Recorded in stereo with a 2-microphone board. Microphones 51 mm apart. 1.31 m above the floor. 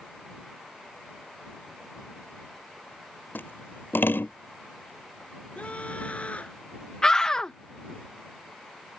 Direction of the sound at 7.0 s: 15° left (ahead or behind).